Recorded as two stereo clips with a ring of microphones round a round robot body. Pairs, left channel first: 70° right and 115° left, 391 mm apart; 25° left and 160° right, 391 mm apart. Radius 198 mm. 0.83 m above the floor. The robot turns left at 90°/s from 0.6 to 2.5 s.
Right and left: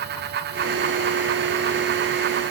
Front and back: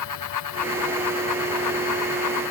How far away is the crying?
No crying in this recording.